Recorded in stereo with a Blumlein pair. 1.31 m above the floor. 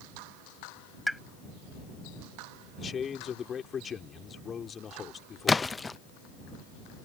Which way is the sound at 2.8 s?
20° left.